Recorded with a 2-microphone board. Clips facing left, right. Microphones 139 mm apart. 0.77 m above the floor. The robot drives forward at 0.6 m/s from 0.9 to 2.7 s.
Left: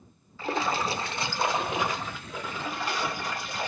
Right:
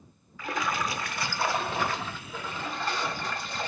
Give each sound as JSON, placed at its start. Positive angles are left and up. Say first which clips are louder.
{"t": 0.4, "sound": "a splash", "louder": "left 3 dB", "side_deg": 30, "distance_m": 0.6}